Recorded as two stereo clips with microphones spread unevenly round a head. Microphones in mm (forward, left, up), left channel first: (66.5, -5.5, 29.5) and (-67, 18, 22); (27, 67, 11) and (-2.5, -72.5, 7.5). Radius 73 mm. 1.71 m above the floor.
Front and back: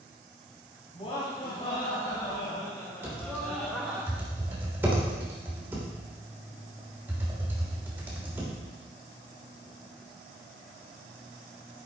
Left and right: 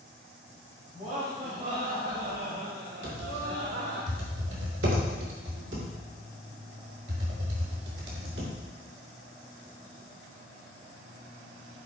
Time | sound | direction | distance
0.9 | laughter | 60° right | 3.5 m
3.0 | typing on a keyboard | 115° right | 3 m